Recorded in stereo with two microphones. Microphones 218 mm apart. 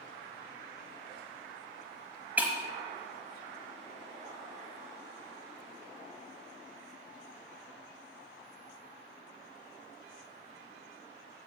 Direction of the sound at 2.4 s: 10° right (ahead or behind).